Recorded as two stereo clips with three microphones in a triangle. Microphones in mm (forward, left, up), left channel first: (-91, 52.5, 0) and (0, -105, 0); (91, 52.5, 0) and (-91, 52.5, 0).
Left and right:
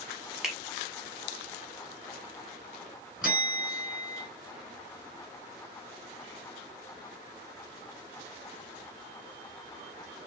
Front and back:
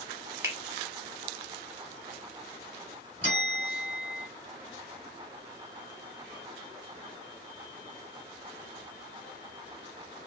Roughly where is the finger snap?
Behind right.